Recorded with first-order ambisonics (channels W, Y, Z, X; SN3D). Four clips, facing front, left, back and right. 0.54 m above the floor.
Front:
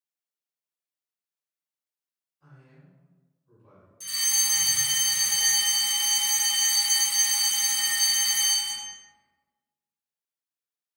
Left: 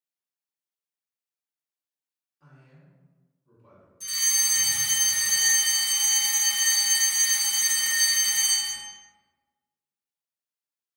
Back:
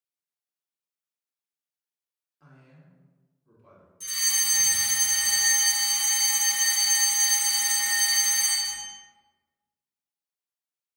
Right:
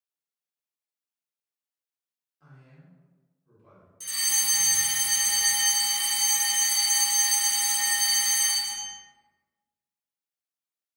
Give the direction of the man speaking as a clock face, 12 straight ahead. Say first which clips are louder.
Right 1 dB, even; 6 o'clock.